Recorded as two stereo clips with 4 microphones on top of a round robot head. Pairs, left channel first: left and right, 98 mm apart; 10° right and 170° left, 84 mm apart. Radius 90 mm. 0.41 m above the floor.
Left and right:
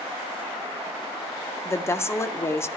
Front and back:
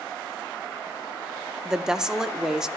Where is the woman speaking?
95° left, 0.8 m.